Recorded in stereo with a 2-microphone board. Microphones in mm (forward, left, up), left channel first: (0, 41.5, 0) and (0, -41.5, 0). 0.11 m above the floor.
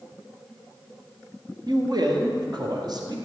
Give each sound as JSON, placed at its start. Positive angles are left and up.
{"t": 1.7, "sound": "a man speaking", "side_deg": -55, "distance_m": 1.9}